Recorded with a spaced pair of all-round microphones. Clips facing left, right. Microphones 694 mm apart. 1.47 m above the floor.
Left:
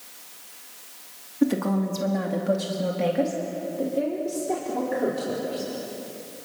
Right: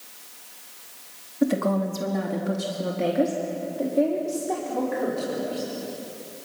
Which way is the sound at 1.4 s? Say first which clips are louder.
Even; 15° right (ahead or behind).